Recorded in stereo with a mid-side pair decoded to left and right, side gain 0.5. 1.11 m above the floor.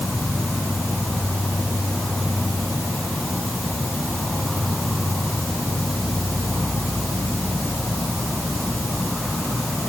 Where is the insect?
5° left.